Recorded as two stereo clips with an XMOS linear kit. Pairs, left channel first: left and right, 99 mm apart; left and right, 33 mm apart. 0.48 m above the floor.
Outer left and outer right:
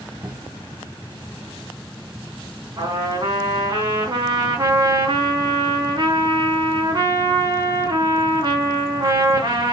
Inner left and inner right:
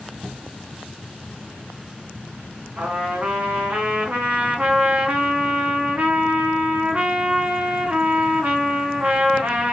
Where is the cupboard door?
25° right (ahead or behind), 0.6 m.